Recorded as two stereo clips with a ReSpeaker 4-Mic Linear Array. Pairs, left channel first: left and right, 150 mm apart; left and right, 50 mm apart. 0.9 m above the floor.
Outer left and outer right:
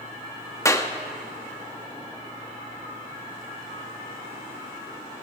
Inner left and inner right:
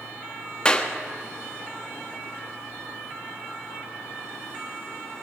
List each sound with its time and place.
0.7 s a clap: 20° left (ahead or behind), 0.9 m